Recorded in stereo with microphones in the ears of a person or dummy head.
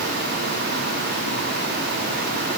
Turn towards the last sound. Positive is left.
No sound to turn to.